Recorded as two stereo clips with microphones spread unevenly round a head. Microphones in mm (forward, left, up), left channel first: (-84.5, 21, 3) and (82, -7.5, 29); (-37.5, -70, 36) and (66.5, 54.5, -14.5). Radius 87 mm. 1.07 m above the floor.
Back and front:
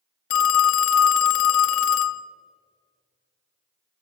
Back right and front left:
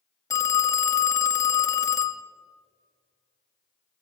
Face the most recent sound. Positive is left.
turn(degrees=170)